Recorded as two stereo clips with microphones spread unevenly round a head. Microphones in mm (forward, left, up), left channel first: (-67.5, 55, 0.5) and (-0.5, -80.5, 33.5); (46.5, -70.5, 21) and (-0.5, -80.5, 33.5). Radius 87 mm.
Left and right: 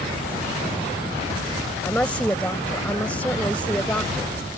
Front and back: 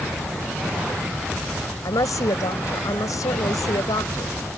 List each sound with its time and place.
1.8 s a woman speaking: 30° left